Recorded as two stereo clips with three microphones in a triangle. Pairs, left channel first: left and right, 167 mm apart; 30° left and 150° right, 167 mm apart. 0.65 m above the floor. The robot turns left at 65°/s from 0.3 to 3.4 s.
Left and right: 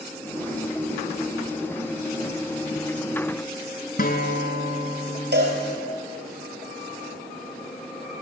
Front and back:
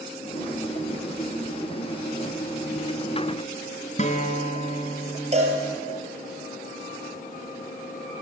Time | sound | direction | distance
4.0 | a guitar | 70° left | 1.3 m
5.3 | a cowbell | 100° right | 4 m